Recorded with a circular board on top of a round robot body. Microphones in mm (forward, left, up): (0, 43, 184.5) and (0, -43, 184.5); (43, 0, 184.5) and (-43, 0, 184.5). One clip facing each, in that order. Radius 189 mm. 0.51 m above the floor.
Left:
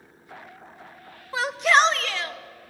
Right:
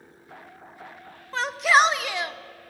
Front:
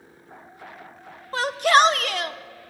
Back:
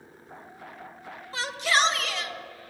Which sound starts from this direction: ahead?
A shout, at 1.3 s.